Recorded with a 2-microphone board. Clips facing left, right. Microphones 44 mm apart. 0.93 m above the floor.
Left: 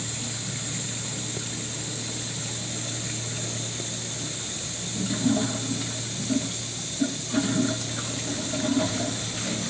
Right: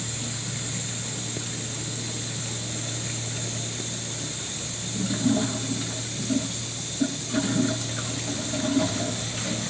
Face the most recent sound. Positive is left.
No sound to turn to.